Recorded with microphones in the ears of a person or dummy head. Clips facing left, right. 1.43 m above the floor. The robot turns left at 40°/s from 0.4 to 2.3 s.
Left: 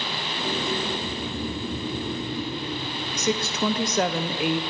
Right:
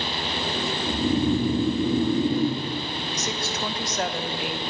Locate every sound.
0.9 s snoring: 60° right, 1.1 m; by 2.6 s 115° right, 1.1 m
3.2 s a woman speaking: 60° left (ahead or behind), 1.0 m